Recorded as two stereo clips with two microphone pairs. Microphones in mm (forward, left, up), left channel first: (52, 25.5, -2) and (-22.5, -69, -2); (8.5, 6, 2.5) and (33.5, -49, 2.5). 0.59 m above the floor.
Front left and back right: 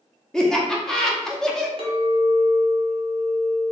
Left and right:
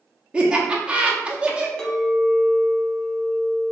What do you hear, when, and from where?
0.3 s laughter: 25° right, 0.8 m
1.8 s a clink: 170° right, 0.9 m